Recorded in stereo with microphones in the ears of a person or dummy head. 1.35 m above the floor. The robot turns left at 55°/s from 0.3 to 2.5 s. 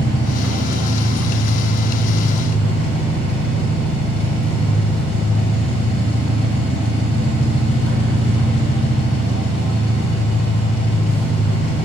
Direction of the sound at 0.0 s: 155° left.